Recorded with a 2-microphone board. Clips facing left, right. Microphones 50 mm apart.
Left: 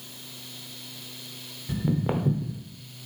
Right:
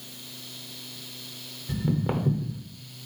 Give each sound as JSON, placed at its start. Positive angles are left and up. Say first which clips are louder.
{"t": 1.7, "sound": "footsteps", "louder": "left 1 dB", "side_deg": 10, "distance_m": 0.7}